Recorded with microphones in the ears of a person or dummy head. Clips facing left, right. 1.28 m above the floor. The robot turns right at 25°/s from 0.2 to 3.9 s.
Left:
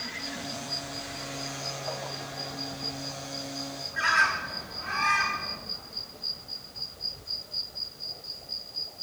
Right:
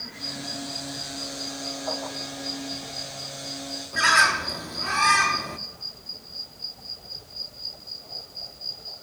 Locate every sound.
3.9 s a bird: 65° right (ahead or behind), 1.2 m